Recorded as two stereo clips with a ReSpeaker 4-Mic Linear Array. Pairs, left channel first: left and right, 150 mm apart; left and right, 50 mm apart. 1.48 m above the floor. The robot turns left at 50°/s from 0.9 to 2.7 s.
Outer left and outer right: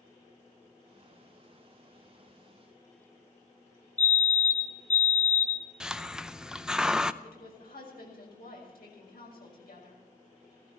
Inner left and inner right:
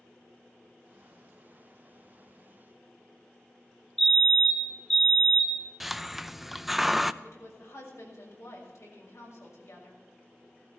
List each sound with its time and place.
4.0 s a fire alarm: 10° left (ahead or behind), 2 m
5.8 s a hiss: 5° right (ahead or behind), 0.5 m
7.2 s a woman speaking: 85° left, 6.5 m